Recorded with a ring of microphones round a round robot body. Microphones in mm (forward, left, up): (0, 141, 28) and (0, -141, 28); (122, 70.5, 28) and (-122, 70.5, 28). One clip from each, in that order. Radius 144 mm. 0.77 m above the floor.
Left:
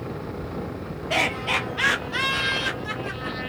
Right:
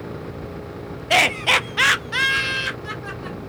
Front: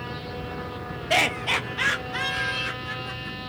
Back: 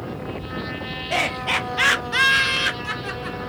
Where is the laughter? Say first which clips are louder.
Right 7 dB, even; 50° right, 0.6 m; by 3.4 s straight behind, 1.1 m.